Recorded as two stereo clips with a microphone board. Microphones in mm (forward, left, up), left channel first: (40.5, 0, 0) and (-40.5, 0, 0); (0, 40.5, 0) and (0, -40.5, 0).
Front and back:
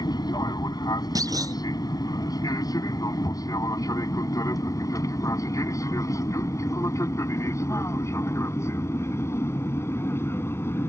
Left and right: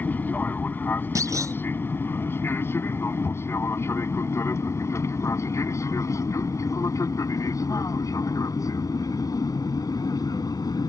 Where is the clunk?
140° right.